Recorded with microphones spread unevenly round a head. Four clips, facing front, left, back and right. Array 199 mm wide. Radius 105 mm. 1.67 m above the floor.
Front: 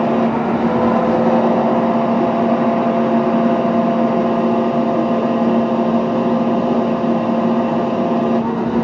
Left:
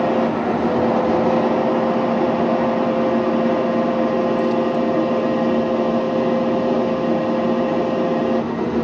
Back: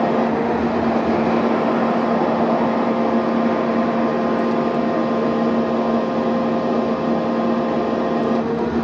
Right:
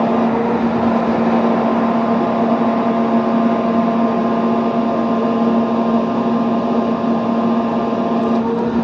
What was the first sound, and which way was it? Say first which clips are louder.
A fan: right 3 dB, front 2 dB; 45° right.